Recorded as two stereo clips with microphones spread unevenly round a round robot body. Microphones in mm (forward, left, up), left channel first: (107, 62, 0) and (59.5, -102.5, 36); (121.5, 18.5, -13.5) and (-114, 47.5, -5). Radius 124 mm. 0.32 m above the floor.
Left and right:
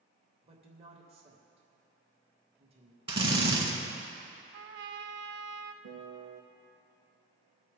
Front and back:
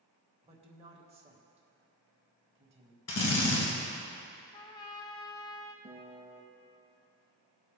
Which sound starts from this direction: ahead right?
A drill, at 3.1 s.